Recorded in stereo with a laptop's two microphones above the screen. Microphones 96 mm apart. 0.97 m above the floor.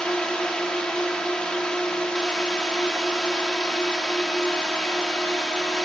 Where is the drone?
10° left (ahead or behind).